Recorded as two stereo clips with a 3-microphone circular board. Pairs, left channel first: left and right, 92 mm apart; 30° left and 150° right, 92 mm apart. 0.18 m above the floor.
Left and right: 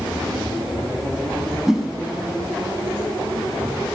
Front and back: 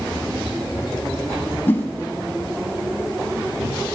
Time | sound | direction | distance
1.7 | a whoosh | 10° right | 0.8 m